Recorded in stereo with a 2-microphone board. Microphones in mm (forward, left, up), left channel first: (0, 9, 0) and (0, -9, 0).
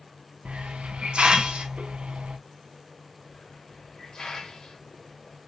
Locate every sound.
0.5 s a hiss: 70° right (ahead or behind), 0.6 m
3.3 s a hiss: 35° left (ahead or behind), 1.1 m